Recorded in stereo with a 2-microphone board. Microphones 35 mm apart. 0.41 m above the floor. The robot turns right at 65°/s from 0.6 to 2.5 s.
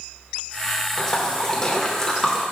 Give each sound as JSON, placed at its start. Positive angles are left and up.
{"t": 1.0, "sound": "a splash", "side_deg": 20, "distance_m": 1.1}